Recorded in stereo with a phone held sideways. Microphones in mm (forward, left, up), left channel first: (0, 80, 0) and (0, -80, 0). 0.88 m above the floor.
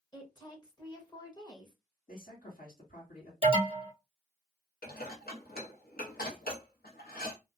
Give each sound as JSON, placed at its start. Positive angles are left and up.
{"t": 0.1, "sound": "a woman speaking", "side_deg": 25, "distance_m": 0.8}
{"t": 2.1, "sound": "a man speaking", "side_deg": 60, "distance_m": 1.6}
{"t": 3.4, "sound": "an alarm", "side_deg": -35, "distance_m": 1.0}
{"t": 4.8, "sound": "dishes clattering", "side_deg": 70, "distance_m": 0.9}